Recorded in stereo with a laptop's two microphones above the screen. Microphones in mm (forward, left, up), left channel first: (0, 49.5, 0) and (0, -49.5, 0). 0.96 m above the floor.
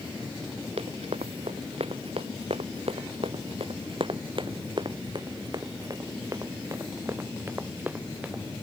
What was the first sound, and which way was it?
Running footsteps, 85° right.